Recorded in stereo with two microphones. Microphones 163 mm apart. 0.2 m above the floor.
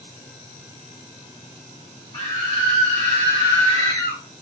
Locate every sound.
2.1 s a scream: 25° left (ahead or behind), 1.8 m; by 4.2 s 20° left (ahead or behind), 1.5 m